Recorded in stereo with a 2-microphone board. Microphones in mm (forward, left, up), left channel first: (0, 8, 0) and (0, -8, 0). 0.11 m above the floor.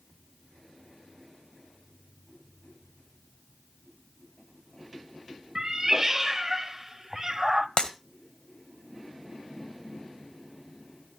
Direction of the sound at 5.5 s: 30° right (ahead or behind).